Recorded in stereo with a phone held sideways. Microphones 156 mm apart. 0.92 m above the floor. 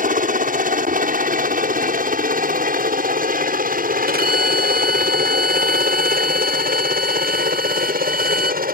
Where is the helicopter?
60° right (ahead or behind); by 8.7 s 70° right (ahead or behind).